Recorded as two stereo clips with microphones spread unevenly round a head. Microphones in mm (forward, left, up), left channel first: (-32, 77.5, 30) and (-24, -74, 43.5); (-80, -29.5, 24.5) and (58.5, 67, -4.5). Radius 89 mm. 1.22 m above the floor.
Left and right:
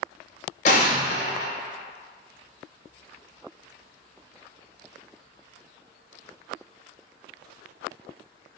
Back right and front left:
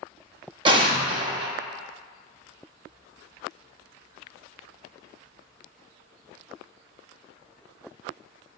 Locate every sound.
0.7 s an explosion: 95° left, 0.7 m